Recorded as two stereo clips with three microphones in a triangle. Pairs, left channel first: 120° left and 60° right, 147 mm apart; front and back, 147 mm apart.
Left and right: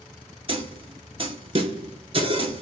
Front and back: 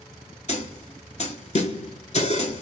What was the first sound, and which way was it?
A snare drum, 20° right.